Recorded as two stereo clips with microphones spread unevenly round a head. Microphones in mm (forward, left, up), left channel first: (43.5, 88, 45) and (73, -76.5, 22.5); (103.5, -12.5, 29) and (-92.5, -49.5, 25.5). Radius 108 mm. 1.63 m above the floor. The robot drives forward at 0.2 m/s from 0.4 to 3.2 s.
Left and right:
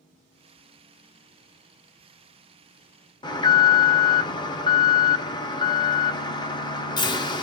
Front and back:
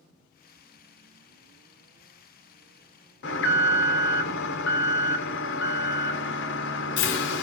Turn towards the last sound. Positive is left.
turn(degrees=45)